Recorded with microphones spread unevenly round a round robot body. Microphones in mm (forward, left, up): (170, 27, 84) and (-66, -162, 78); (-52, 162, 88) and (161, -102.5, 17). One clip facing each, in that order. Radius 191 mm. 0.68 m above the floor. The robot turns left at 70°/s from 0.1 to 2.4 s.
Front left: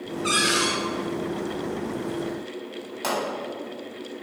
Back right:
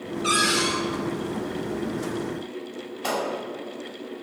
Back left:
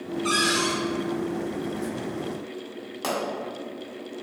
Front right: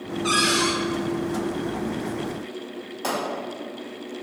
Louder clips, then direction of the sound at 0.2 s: Even, front right 3 dB; 140° right.